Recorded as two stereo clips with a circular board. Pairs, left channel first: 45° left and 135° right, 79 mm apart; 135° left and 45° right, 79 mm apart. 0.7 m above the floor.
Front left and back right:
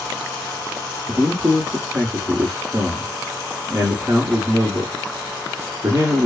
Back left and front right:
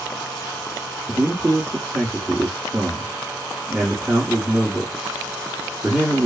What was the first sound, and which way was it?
A man speaking, 120° right.